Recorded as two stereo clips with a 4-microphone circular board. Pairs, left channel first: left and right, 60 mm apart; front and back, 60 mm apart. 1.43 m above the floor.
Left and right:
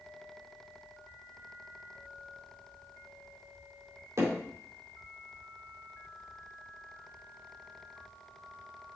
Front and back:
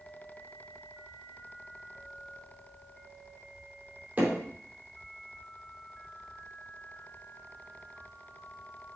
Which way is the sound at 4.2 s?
120° right.